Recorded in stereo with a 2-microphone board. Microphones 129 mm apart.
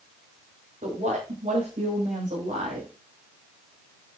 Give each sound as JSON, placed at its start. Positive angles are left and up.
{"t": 0.8, "sound": "a woman speaking", "side_deg": -80, "distance_m": 7.5}